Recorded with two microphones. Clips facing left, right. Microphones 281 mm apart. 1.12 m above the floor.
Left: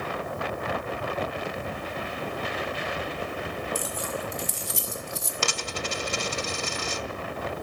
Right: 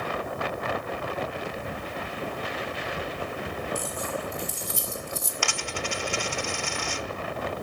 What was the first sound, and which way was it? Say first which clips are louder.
Keys jangling: even; 90° left.